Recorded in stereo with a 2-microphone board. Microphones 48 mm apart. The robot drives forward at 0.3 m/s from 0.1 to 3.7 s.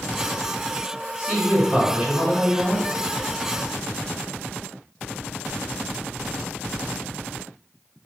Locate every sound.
1.2 s a woman speaking: 20° right (ahead or behind), 1.9 m; by 2.8 s 15° right (ahead or behind), 2.5 m